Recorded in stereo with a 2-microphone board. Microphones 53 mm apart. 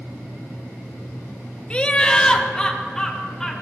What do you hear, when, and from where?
1.7 s laughter: 20° left (ahead or behind), 0.6 m; by 3.5 s 10° left (ahead or behind), 1.9 m